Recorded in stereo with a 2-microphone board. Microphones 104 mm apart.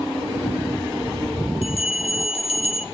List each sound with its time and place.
1.6 s a bell: 80° left, 1.3 m